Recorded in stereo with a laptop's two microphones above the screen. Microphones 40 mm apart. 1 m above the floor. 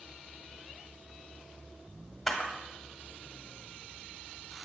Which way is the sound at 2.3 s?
5° left (ahead or behind).